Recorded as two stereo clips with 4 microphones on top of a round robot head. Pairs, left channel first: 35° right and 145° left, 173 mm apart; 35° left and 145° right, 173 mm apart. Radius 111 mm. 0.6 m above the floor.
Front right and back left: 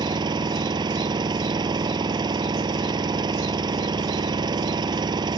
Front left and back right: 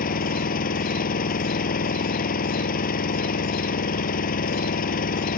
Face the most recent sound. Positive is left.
turn(degrees=80)